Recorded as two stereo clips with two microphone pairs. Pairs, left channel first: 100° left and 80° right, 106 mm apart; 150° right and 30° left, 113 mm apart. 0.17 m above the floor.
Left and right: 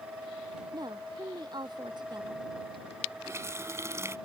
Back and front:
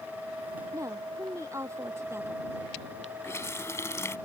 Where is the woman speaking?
30° right; by 2.5 s 35° right.